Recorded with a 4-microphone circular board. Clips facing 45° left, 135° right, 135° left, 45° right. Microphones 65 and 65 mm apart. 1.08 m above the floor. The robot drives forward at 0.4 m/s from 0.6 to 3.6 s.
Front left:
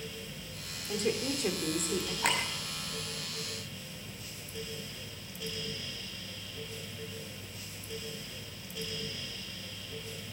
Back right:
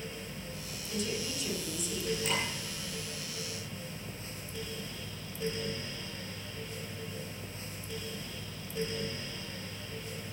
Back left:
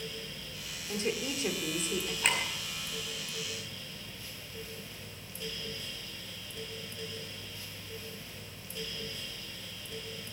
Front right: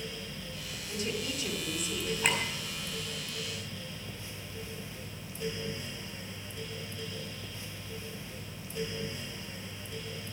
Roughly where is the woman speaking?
Left.